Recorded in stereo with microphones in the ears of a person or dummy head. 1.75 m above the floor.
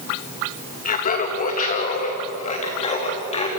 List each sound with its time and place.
0.8 s laughter: 45° left (ahead or behind), 2.5 m; by 3.5 s 30° left (ahead or behind), 4 m